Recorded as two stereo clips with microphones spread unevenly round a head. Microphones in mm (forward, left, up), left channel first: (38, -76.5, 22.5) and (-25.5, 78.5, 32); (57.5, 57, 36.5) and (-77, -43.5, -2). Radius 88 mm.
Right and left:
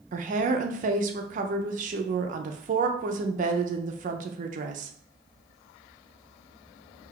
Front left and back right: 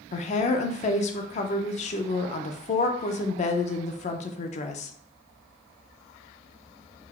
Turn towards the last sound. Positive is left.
turn(degrees=70)